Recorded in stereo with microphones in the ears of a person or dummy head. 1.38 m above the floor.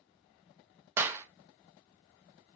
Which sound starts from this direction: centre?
A clap, at 1.0 s.